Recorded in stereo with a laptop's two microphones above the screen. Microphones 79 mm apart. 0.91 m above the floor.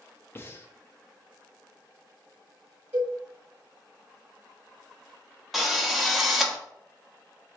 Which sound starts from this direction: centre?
A drill, at 5.5 s.